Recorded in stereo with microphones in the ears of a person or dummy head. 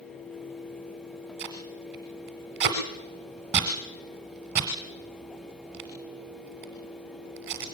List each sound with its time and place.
1.4 s tape being pulled: 15° right (ahead or behind), 1.1 m